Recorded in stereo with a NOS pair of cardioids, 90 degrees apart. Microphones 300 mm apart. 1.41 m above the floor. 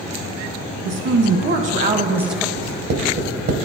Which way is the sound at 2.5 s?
65° right.